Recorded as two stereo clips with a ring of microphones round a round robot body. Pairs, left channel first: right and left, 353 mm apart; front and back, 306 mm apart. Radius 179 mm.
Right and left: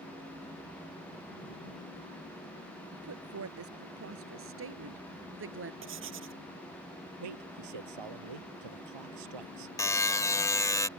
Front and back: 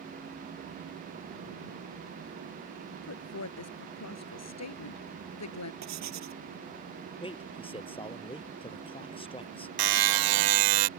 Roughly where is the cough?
No cough in this recording.